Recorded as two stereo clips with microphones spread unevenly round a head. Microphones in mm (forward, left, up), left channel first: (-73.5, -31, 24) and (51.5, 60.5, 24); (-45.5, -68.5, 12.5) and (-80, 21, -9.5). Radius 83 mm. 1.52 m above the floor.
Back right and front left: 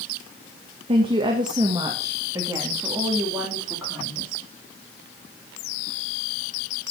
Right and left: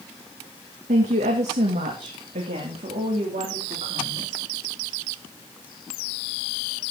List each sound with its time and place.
0.9 s a woman speaking: 90° left, 1.3 m; by 4.3 s 115° left, 3.5 m